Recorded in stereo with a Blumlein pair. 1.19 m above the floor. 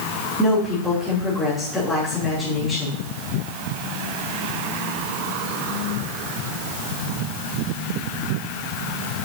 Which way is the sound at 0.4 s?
10° left.